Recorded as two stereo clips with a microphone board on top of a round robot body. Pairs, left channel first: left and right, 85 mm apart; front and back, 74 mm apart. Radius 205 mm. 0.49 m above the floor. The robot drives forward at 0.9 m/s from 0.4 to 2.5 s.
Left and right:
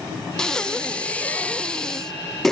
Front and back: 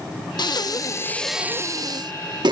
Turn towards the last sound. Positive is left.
turn(degrees=175)